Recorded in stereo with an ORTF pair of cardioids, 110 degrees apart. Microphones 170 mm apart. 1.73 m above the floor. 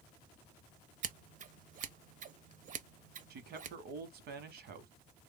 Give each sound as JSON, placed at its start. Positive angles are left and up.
{"t": 1.0, "sound": "scissors", "azimuth_deg": -50, "distance_m": 0.6}
{"t": 3.3, "sound": "a man speaking", "azimuth_deg": -70, "distance_m": 1.2}